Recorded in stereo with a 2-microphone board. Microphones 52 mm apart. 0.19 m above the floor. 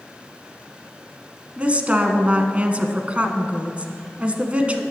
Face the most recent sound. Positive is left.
turn(degrees=-25)  # may be behind; listen again after turning